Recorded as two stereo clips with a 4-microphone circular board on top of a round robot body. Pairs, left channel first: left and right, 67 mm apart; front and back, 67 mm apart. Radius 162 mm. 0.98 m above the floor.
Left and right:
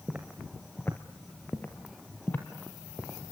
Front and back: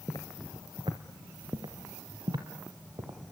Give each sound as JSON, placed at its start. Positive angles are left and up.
{"t": 0.1, "sound": "footsteps", "azimuth_deg": -25, "distance_m": 1.0}